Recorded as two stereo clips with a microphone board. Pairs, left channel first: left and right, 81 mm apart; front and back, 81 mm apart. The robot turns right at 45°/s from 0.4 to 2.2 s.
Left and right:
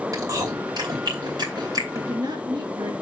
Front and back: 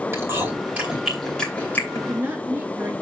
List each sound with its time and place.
0.1 s chewing: 125° right, 2.5 m; by 2.1 s 50° right, 2.5 m
1.9 s a woman speaking: 130° right, 2 m; by 2.9 s 115° right, 2 m